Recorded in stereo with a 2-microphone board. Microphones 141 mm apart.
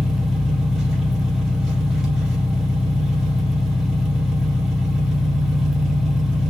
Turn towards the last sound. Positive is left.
turn(degrees=-5)  # may be behind; listen again after turning